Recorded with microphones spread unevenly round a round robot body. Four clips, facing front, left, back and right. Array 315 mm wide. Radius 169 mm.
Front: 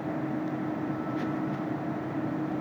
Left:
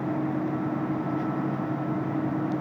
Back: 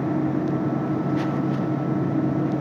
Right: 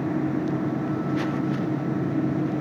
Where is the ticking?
No ticking in this recording.